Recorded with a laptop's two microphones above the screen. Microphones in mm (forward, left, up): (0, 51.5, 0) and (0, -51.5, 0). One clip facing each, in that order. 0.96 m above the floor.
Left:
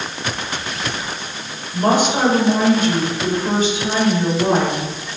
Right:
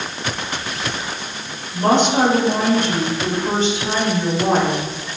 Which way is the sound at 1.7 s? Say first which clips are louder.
Right 1 dB; 5° left (ahead or behind).